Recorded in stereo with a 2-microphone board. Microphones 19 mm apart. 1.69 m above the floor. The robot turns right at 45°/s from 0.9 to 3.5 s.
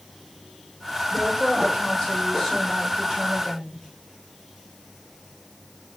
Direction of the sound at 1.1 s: 130° left.